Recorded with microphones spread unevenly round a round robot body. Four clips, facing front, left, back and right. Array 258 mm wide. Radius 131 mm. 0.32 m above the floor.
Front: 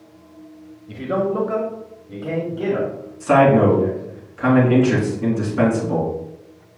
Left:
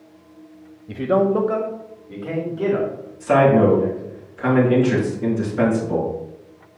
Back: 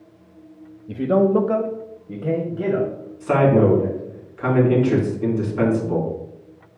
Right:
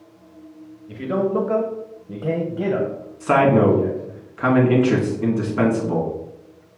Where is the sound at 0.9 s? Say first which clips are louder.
Left 4 dB, back 4 dB; 145° left, 1.2 m; by 4.2 s 90° right, 3 m.